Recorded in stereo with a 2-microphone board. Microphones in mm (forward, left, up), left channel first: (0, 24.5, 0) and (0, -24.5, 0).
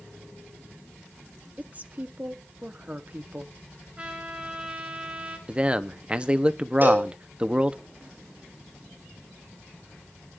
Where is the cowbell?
45° right (ahead or behind), 6 m.